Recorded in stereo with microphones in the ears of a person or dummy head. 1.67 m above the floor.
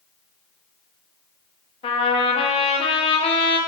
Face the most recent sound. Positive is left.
turn(degrees=30)  # may be behind; listen again after turning